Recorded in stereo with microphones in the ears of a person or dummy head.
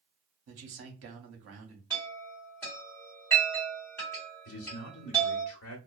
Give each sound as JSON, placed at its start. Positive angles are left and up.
{"t": 0.5, "sound": "a man speaking", "side_deg": -55, "distance_m": 0.8}
{"t": 1.9, "sound": "a chime", "side_deg": 5, "distance_m": 1.8}
{"t": 4.5, "sound": "a man speaking", "side_deg": 65, "distance_m": 0.9}